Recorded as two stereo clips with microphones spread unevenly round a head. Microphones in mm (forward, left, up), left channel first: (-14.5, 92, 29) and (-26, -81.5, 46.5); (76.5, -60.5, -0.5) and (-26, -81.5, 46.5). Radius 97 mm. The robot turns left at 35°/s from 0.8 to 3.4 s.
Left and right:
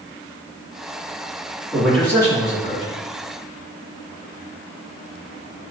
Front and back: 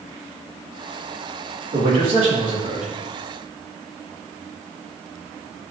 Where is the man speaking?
Straight behind, 3.5 m; by 3.0 s 135° left, 3.5 m.